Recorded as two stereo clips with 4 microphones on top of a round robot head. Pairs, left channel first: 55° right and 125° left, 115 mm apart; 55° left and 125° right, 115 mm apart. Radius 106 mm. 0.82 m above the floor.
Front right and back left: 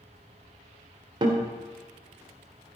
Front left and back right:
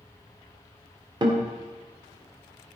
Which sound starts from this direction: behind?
A guitar, at 1.2 s.